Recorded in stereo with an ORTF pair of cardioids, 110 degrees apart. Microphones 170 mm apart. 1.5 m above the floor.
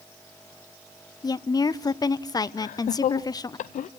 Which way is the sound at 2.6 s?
50° left.